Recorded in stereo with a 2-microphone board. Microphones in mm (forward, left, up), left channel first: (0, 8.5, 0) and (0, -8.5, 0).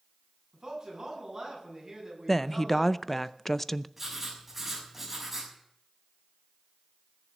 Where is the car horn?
I don't hear a car horn.